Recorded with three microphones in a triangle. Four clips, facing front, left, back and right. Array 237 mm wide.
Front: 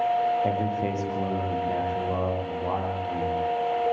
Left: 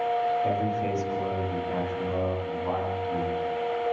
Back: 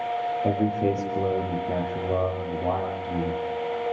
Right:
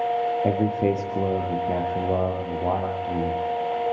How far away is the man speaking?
About 7.5 m.